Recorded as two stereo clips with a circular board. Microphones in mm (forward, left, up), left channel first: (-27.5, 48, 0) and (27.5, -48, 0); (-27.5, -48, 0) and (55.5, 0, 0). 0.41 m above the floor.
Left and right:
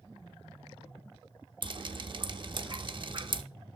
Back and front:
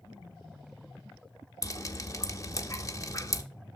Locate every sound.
1.6 s dripping: 95° right, 0.6 m